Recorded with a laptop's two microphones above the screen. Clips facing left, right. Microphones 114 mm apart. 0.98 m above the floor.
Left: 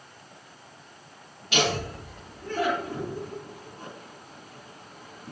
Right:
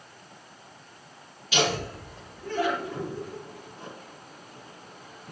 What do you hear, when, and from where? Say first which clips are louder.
1.5 s laughter: even; 50° left (ahead or behind), 2.5 m